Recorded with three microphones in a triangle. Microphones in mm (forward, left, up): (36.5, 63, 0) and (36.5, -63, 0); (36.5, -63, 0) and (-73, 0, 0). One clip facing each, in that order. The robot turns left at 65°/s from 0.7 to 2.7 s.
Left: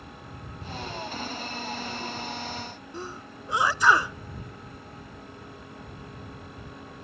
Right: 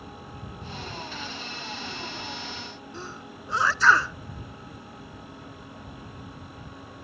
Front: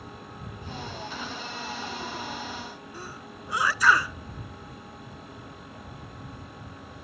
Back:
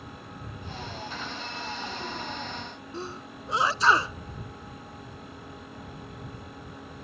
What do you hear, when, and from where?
2.9 s a sneeze: 145° left